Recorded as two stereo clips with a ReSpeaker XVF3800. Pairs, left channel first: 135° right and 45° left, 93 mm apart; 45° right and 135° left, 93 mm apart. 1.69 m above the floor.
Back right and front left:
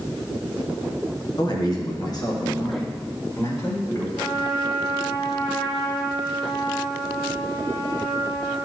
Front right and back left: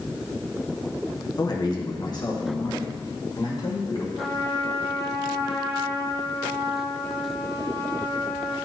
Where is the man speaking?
95° right, 1.4 m; by 4.0 s 85° right, 3.5 m.